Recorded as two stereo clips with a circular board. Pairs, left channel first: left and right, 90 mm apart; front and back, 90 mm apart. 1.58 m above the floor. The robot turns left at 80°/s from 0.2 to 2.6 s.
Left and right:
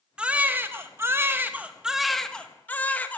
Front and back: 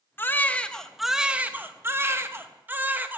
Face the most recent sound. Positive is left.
turn(degrees=140)